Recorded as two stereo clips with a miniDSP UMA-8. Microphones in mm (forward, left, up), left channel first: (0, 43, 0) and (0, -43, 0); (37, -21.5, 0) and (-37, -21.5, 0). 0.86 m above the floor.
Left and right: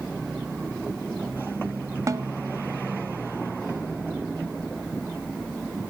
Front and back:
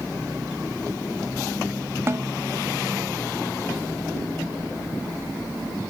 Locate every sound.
2.1 s a snare drum: 130° right, 1.0 m